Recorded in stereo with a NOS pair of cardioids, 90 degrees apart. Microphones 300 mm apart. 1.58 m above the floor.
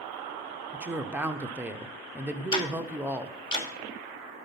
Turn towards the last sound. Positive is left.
turn(degrees=15)